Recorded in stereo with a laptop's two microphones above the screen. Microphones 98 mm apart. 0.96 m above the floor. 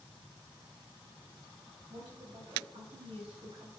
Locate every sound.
1.9 s a woman speaking: 70° right (ahead or behind), 6.5 m; by 3.7 s 75° right (ahead or behind), 5.5 m